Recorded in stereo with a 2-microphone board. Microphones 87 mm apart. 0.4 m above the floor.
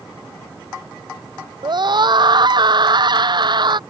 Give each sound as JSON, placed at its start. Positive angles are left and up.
{"t": 1.6, "sound": "a scream", "side_deg": -55}